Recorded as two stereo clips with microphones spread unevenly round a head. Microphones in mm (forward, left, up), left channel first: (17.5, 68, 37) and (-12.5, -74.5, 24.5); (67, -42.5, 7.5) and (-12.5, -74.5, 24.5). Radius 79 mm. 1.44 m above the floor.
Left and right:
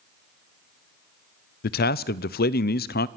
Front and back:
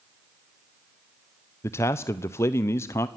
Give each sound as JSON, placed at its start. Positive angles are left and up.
{"t": 1.6, "sound": "a man speaking", "azimuth_deg": 80, "distance_m": 0.6}